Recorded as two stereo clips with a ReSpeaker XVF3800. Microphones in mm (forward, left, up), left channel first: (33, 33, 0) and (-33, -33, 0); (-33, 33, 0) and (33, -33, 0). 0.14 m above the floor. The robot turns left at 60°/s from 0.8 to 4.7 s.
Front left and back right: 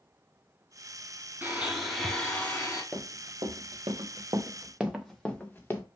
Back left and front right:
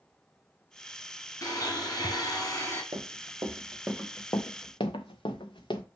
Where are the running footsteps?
55° right, 1.2 m; by 5.8 s 110° left, 0.9 m.